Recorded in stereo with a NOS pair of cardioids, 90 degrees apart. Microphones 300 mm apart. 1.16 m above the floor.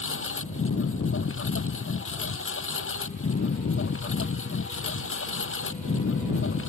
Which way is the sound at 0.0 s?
40° left.